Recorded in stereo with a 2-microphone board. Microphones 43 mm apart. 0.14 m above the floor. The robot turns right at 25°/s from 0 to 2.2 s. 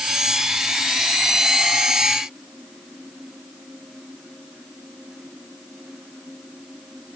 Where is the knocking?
No knocking in this recording.